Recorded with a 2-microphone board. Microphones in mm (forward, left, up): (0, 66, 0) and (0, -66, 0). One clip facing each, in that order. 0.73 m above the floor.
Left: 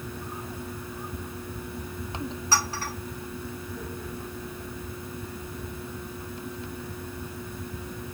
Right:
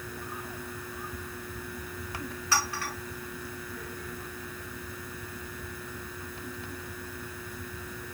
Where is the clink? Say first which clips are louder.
Left 1 dB; 35° left (ahead or behind), 1.5 m.